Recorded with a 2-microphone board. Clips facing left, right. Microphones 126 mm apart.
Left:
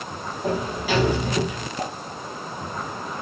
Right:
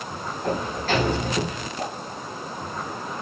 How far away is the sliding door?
About 2 m.